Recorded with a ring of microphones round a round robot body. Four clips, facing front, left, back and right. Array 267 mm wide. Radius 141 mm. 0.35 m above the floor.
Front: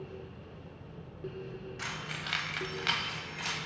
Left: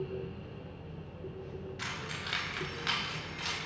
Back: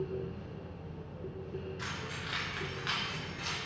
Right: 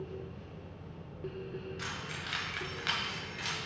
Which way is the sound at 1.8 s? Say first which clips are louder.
Left 1 dB, even; 15° left.